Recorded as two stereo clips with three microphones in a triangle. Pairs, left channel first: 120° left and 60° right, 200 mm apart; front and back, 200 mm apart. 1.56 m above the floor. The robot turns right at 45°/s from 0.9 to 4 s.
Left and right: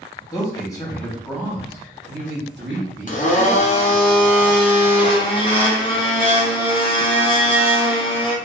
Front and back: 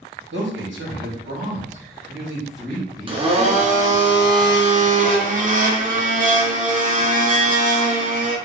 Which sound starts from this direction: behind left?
A blender, at 3.1 s.